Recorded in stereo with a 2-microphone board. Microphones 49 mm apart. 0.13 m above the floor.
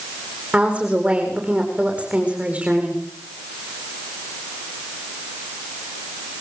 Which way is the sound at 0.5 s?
25° right (ahead or behind).